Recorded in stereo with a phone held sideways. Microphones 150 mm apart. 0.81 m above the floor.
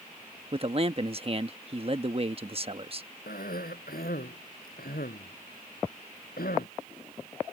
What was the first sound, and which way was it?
A man speaking, 40° right (ahead or behind).